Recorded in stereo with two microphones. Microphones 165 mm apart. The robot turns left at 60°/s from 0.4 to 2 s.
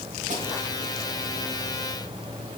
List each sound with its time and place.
0.3 s a snare drum: 50° right (ahead or behind), 2.5 m